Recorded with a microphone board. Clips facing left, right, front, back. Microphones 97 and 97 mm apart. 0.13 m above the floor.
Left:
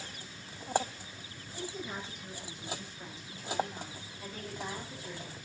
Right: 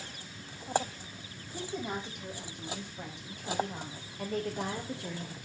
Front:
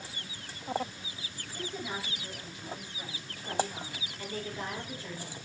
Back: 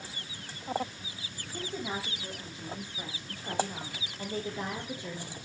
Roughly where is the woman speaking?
Behind right.